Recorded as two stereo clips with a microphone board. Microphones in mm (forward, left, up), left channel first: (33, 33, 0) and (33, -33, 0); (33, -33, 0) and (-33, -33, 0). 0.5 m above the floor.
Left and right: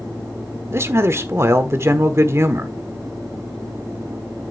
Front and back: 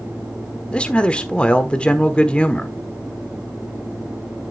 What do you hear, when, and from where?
0.7 s a man speaking: 65° right, 1.2 m